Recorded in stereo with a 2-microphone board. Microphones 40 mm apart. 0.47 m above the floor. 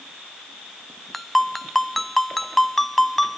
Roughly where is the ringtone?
Centre.